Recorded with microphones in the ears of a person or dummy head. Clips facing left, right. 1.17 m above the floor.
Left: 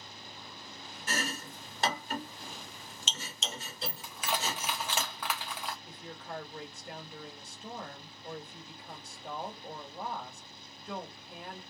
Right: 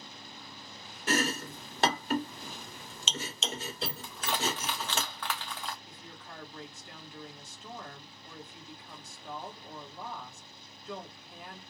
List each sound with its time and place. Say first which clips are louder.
1.1 s chopping: right 7 dB; 50° right (ahead or behind), 0.6 m
4.0 s crushing: right 1 dB; 10° left (ahead or behind), 0.6 m
5.8 s a woman speaking: left 5 dB; 45° left (ahead or behind), 1.4 m